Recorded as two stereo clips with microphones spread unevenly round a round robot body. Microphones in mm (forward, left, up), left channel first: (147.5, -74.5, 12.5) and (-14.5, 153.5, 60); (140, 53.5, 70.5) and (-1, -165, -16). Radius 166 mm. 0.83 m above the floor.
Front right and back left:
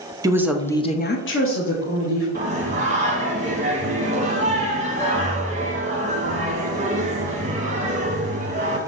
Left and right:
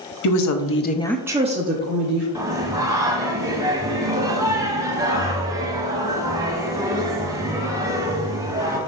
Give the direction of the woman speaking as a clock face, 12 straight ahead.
11 o'clock.